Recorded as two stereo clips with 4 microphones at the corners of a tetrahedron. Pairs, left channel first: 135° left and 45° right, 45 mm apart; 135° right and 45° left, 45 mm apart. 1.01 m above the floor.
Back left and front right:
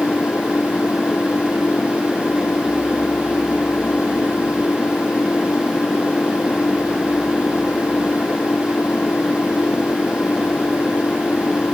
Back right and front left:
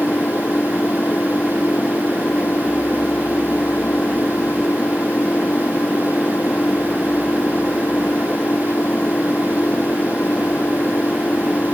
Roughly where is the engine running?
Behind.